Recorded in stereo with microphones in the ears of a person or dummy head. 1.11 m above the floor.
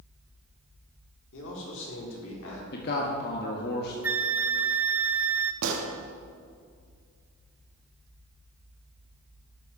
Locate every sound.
1.3 s a man speaking: 70° left (ahead or behind), 4 m; by 2.6 s 75° left (ahead or behind), 4 m
2.7 s a man speaking: 55° left (ahead or behind), 1.4 m
4.0 s a flute: 15° right (ahead or behind), 0.7 m
5.6 s a gunshot: 75° right (ahead or behind), 1.6 m